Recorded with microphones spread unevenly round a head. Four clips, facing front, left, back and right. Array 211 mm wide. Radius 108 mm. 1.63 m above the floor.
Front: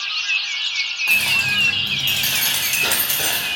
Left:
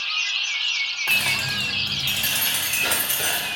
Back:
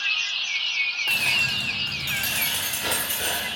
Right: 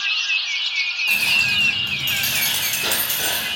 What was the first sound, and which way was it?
Keys jangling, 105° left.